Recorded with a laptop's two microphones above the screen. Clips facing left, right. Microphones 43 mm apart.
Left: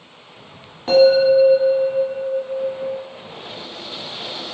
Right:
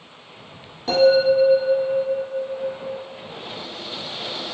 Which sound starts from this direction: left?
A bell, at 0.9 s.